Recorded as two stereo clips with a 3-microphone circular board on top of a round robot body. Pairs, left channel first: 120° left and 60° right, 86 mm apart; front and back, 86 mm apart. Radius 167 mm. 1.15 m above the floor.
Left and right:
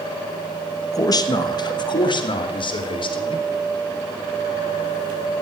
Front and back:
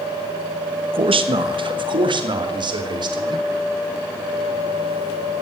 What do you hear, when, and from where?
0.9 s a man speaking: 170° left, 1.5 m; by 3.4 s 140° left, 4 m